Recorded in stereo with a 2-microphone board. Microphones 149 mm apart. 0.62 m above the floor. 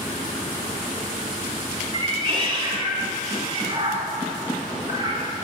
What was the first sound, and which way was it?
A cat meowing, 30° right (ahead or behind).